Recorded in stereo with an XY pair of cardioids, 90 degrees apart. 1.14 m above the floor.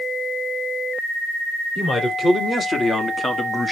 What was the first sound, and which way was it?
A man speaking, 45° left.